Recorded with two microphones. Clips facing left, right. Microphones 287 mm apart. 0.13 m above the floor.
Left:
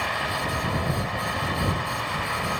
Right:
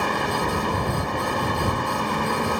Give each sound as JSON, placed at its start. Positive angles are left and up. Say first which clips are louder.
{"t": 0.0, "sound": "a vehicle", "louder": "right 7 dB", "side_deg": -55}